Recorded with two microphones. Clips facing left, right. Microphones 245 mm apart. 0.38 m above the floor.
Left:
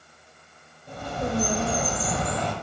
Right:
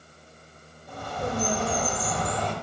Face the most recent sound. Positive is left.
turn(degrees=25)  # may be behind; listen again after turning